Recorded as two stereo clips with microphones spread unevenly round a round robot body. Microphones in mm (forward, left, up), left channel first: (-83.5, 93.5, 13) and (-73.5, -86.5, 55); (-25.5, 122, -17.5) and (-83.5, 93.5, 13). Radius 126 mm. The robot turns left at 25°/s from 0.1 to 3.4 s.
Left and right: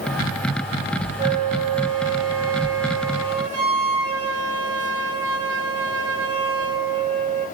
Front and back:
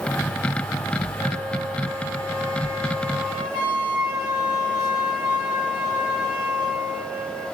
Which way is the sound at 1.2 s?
20° right.